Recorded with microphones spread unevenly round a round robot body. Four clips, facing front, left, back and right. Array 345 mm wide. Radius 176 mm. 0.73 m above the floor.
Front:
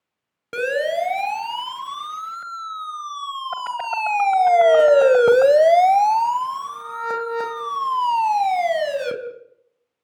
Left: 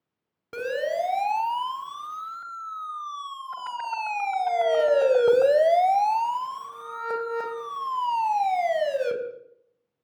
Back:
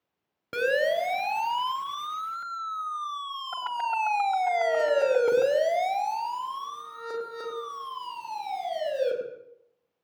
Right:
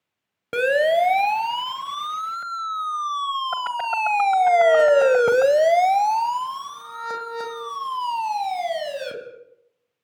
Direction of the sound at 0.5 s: 95° right.